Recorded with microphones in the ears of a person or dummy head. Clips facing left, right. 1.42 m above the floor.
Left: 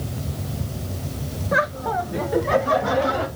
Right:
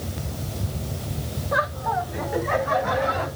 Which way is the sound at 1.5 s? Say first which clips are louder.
Left 2 dB; 30° left (ahead or behind).